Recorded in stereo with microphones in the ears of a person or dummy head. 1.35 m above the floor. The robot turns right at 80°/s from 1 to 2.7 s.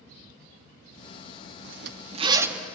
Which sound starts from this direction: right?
A zipper, at 1.6 s.